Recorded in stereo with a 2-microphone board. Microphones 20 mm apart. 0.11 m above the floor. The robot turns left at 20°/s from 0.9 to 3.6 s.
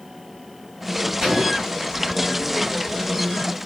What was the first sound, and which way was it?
An explosion, 35° right (ahead or behind).